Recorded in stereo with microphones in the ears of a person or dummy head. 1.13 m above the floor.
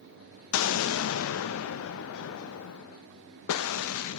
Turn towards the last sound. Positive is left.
turn(degrees=85)